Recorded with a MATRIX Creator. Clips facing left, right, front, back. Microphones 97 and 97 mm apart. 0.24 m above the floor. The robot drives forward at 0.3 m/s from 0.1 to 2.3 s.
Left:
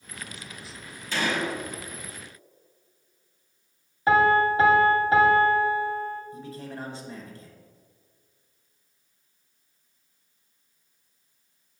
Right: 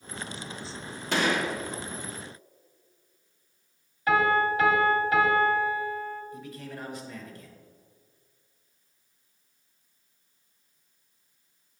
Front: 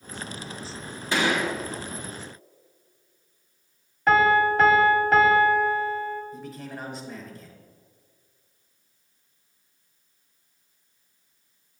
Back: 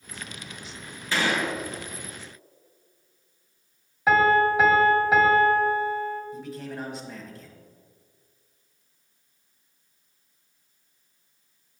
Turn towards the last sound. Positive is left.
turn(degrees=90)